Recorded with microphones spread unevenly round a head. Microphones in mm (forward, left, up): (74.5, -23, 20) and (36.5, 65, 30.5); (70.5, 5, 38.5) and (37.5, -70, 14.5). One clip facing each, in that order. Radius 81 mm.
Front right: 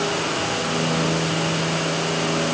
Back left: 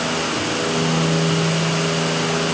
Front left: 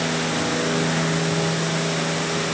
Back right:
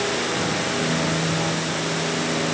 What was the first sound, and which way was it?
Only background noise.